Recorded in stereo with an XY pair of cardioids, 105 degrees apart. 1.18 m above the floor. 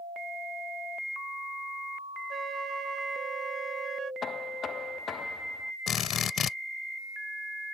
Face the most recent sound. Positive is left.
turn(degrees=60)